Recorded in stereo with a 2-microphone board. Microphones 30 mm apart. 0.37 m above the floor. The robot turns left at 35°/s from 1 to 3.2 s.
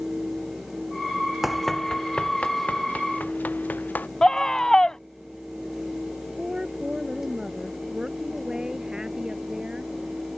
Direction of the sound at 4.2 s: 20° left (ahead or behind).